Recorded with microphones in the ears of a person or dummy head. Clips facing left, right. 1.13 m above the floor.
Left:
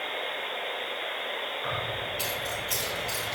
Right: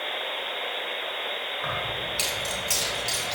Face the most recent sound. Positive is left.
turn(degrees=-60)  # may be behind; listen again after turning